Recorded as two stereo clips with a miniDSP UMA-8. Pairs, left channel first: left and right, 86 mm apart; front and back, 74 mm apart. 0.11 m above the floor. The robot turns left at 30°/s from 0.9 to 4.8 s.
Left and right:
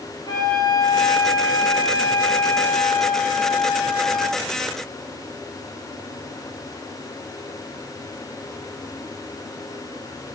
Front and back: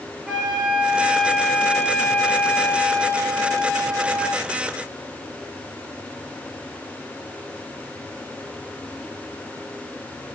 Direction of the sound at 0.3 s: 95° left.